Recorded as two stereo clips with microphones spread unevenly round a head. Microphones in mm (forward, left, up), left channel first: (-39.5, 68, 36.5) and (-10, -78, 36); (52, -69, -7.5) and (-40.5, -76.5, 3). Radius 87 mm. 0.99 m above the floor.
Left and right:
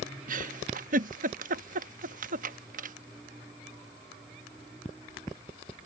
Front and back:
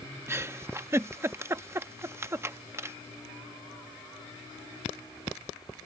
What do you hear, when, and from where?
0.3 s a giggle: 115° right